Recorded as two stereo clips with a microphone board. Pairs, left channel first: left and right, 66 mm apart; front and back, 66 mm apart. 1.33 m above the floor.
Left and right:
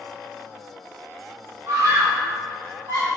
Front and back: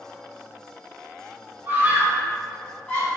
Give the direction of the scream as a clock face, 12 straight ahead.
4 o'clock.